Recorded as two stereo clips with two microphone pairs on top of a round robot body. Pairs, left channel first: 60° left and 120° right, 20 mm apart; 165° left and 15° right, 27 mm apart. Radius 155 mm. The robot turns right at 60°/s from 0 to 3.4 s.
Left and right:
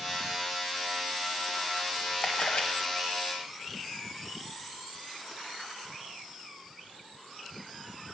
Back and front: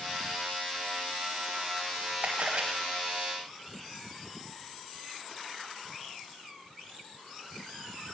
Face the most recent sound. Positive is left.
turn(degrees=90)